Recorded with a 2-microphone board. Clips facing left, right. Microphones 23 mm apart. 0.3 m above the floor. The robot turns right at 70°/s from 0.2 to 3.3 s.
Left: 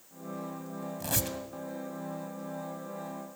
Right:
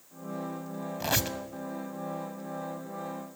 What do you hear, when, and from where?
1.0 s a squeak: 45° right (ahead or behind), 0.8 m; by 1.4 s 20° right (ahead or behind), 0.8 m